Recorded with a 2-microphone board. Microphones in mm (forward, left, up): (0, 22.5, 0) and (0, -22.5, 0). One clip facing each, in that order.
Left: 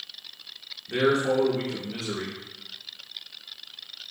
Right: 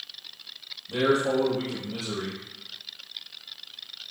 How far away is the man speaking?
About 1.8 m.